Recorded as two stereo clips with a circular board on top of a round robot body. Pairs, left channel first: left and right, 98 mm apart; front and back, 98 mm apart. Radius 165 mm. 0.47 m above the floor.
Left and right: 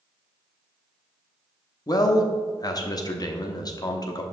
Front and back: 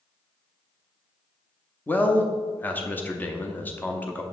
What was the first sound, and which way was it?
A man speaking, 65° left.